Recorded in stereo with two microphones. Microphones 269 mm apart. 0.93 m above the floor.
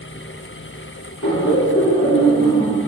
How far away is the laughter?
About 3 m.